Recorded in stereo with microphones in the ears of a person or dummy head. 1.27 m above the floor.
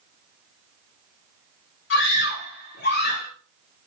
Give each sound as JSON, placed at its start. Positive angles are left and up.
{"t": 1.9, "sound": "a scream", "side_deg": 65, "distance_m": 4.5}